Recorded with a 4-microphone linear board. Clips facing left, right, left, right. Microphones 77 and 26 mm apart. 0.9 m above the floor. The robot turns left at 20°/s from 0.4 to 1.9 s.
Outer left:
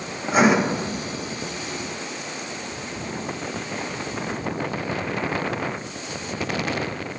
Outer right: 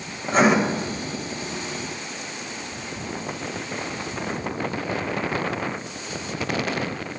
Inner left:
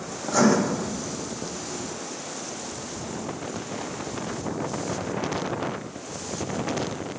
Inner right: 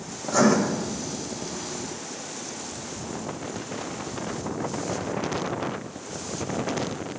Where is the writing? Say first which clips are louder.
Even, even; 10° left (ahead or behind), 0.7 m.